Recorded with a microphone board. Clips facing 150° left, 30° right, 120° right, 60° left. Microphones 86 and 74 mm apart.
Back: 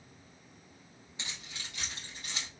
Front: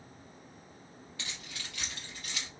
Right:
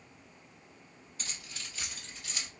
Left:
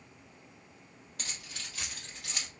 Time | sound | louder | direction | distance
1.2 | keys jangling | even, left 1 dB | 80° left | 1.4 m